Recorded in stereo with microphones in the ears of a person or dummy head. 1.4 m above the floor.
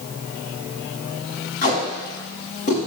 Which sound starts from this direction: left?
Tape being pulled, at 1.6 s.